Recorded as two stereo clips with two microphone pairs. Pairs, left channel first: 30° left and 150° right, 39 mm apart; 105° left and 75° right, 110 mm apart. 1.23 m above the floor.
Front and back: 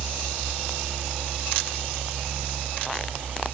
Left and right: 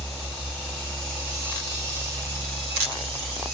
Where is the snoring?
I don't hear snoring.